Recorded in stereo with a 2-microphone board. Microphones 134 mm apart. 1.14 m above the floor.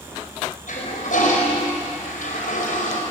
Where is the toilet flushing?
75° left (ahead or behind), 5.5 m.